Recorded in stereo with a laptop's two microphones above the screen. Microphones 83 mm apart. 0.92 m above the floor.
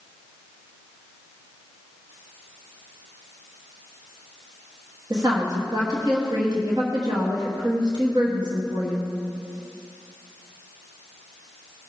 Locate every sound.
5.1 s a woman speaking: 50° right (ahead or behind), 1.4 m